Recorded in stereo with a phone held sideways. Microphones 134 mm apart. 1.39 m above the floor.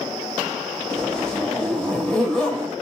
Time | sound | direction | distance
0.9 | a zipper | 5° left (ahead or behind) | 3.5 m